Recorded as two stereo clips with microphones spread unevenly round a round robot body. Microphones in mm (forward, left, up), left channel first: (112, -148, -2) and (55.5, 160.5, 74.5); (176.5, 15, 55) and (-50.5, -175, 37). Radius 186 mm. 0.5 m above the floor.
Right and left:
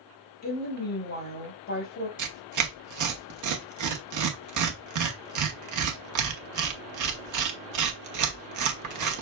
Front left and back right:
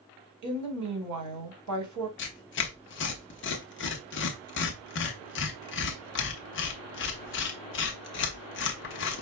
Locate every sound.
0.4 s a woman speaking: 130° right, 2.0 m
2.2 s tearing paper: 80° left, 0.9 m